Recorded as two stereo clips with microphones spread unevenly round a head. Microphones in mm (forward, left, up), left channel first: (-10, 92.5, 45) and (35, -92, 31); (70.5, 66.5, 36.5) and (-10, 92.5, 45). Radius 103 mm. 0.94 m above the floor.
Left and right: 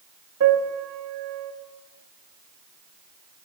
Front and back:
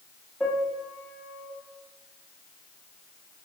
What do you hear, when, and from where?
0.4 s a piano: 105° right, 1.0 m